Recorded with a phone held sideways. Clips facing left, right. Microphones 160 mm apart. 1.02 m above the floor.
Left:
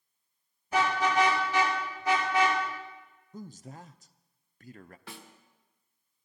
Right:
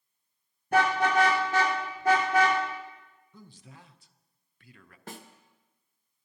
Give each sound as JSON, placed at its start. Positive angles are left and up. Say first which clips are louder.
{"t": 0.7, "sound": "a car horn", "louder": "right 3 dB", "side_deg": -60, "distance_m": 7.0}
{"t": 3.3, "sound": "a man speaking", "louder": "left 8 dB", "side_deg": 45, "distance_m": 0.5}
{"t": 5.1, "sound": "a snare drum", "louder": "right 5 dB", "side_deg": -45, "distance_m": 1.2}